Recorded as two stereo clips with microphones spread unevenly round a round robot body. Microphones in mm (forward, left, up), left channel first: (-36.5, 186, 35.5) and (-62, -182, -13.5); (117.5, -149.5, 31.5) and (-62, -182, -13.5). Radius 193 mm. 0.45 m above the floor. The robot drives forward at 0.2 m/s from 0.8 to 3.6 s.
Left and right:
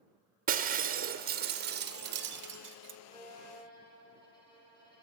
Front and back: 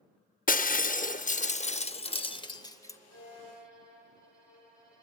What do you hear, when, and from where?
0.5 s breaking glass: 40° right, 0.9 m; by 3.0 s 75° right, 0.7 m
3.1 s a violin: 165° left, 7.5 m